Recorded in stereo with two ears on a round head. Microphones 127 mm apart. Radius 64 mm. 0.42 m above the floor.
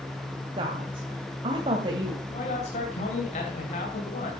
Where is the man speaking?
50° left (ahead or behind), 3 m.